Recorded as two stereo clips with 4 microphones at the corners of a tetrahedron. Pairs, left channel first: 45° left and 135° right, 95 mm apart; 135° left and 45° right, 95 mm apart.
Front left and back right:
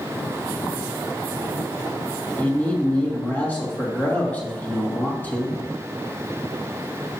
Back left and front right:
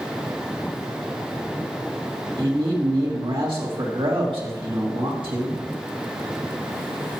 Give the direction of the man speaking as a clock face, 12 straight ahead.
1 o'clock.